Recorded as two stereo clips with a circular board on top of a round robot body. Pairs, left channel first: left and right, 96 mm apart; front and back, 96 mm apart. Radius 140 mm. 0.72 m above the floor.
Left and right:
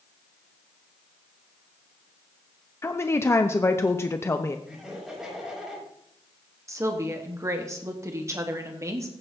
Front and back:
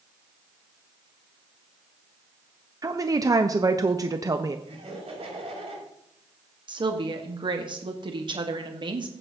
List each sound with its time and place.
2.8 s a woman speaking: 140° left, 0.8 m
4.7 s laughter: 175° right, 7.5 m
6.7 s a woman speaking: 150° right, 1.3 m